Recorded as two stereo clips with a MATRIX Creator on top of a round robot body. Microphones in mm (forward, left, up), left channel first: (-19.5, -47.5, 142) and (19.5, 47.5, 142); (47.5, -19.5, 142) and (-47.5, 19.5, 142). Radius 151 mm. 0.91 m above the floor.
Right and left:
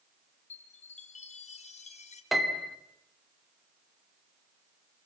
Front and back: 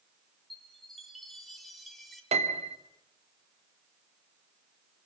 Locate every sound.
0.5 s a chime: 110° right, 3 m
2.3 s a piano: 155° left, 2.5 m